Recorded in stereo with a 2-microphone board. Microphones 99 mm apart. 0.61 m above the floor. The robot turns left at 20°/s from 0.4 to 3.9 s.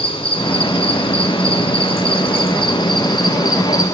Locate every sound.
0.0 s an insect: 110° left, 1.5 m; by 3.9 s 40° left, 1.5 m